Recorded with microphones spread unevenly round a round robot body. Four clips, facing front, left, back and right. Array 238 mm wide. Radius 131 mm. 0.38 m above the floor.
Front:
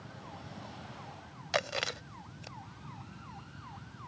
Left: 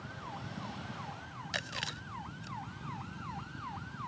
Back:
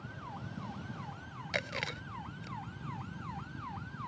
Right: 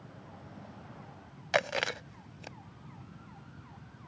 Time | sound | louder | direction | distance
1.5 | chewing | right 13 dB, front 5 dB | 100° right | ?